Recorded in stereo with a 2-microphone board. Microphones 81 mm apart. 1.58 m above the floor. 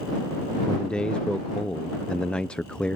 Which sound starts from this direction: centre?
A man speaking, at 0.7 s.